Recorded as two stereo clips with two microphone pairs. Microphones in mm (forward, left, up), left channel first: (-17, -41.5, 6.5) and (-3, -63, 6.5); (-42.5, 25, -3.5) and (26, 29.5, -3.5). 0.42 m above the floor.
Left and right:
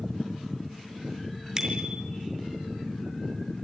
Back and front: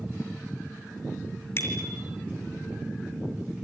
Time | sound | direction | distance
1.6 | a bicycle bell | 125° right | 4.5 m